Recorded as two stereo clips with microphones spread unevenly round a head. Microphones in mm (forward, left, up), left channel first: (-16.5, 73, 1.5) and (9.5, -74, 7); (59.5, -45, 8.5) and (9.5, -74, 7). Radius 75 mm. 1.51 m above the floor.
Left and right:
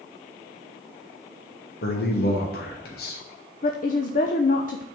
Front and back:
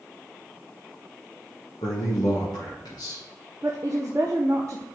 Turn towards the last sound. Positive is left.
turn(degrees=140)